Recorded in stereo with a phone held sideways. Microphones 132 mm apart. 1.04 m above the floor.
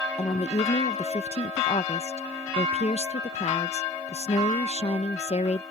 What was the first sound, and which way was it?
A woman speaking, 50° left (ahead or behind).